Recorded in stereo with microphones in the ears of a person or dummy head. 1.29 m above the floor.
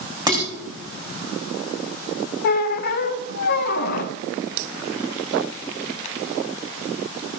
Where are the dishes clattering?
15° right (ahead or behind), 4 m.